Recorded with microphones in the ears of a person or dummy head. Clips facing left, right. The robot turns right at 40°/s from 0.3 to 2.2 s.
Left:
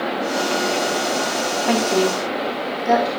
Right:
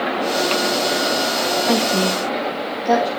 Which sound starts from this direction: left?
A woman speaking, at 1.7 s.